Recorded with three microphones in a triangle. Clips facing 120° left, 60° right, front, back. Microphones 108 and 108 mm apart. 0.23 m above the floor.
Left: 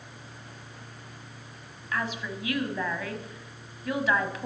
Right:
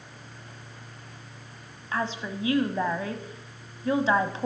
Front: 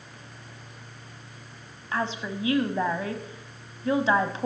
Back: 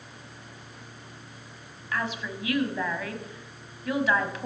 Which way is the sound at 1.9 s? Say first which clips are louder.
Right 2 dB, front 2 dB; 30° right.